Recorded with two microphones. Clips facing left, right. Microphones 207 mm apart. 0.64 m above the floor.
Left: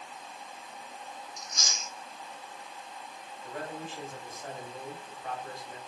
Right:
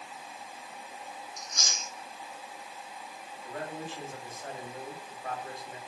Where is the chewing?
55° right (ahead or behind), 1.1 m.